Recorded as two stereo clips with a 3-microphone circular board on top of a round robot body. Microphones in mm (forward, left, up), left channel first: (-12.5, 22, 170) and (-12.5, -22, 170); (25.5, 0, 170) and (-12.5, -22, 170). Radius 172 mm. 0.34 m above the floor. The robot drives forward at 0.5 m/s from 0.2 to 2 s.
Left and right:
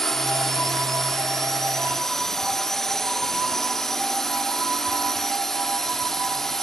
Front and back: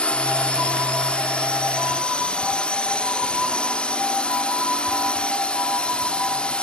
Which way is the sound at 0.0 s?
20° left.